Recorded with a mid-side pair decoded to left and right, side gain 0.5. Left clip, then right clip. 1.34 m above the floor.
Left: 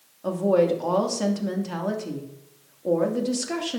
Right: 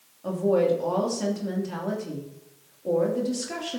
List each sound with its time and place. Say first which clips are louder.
0.2 s a woman speaking: left 2 dB; 30° left, 2.5 m